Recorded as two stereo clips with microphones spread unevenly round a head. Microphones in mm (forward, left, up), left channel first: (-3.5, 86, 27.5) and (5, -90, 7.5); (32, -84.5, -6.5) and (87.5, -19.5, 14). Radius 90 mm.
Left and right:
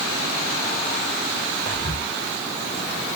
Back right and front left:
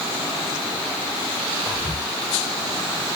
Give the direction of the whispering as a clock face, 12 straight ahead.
9 o'clock.